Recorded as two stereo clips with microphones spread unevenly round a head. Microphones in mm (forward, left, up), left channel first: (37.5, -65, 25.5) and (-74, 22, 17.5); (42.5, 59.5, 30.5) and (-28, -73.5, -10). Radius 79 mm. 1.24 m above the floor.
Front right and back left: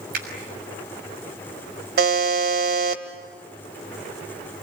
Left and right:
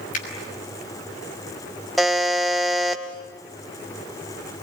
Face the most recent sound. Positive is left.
turn(degrees=145)